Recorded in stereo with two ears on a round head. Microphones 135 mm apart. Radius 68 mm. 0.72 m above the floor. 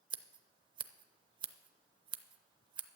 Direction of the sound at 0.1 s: 35° right (ahead or behind).